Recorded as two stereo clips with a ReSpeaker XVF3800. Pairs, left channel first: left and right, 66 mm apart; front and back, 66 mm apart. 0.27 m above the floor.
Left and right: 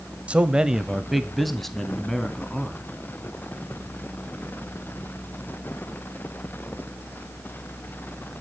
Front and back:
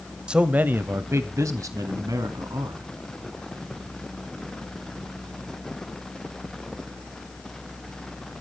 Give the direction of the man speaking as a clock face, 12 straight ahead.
4 o'clock.